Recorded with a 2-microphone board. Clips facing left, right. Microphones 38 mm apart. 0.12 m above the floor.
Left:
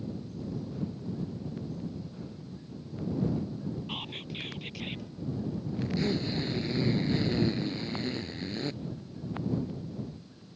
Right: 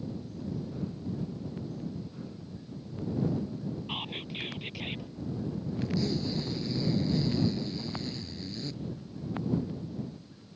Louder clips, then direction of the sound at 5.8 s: Left 1 dB; 40° left (ahead or behind).